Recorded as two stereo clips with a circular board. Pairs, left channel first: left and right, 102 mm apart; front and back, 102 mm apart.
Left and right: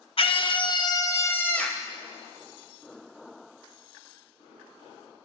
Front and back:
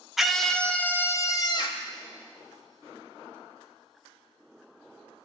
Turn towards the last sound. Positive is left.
turn(degrees=0)